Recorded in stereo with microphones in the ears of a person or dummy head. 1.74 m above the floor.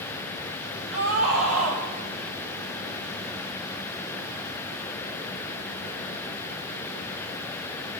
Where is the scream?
85° right, 5.5 m.